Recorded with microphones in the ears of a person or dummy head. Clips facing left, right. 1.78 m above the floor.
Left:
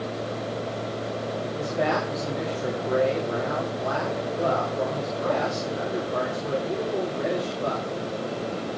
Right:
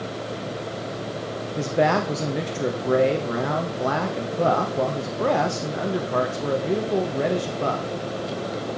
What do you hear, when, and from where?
1.6 s a man speaking: 65° right (ahead or behind), 2 m